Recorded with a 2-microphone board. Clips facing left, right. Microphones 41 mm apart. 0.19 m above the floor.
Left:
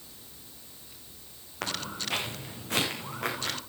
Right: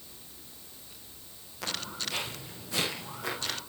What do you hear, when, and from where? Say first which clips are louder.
1.6 s footsteps: left 2 dB; 60° left (ahead or behind), 4 m; by 3.6 s 75° left (ahead or behind), 7 m